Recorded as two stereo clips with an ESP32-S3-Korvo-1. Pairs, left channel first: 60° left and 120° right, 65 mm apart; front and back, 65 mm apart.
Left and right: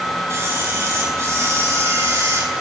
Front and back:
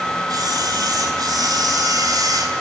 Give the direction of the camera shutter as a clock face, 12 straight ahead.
6 o'clock.